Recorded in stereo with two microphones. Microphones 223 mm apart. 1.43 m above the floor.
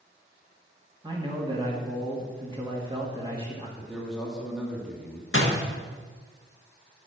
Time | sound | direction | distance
1.0 | a man speaking | 20° right (ahead or behind) | 2 m
3.8 | a man speaking | centre (ahead or behind) | 2.5 m
5.3 | a door slam | 70° left (ahead or behind) | 1.5 m